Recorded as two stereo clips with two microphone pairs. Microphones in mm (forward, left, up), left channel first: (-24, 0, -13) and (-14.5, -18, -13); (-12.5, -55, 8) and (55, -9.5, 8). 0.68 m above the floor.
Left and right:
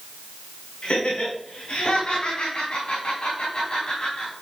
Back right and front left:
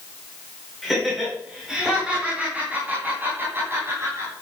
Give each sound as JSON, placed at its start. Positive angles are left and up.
{"t": 0.8, "sound": "laughter", "azimuth_deg": 120, "distance_m": 4.5}